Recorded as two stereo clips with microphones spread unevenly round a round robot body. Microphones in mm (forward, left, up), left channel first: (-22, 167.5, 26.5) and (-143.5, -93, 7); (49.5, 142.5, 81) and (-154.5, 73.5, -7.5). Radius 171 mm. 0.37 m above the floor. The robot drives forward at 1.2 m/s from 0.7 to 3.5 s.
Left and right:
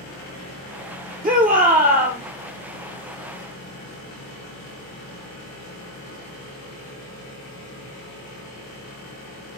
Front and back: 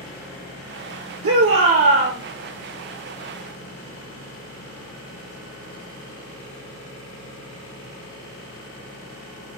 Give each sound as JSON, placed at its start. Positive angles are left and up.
{"t": 1.2, "sound": "a shout", "azimuth_deg": -175, "distance_m": 8.0}